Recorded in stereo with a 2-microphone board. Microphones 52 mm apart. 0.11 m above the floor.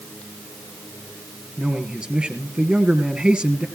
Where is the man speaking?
20° right (ahead or behind), 2 m.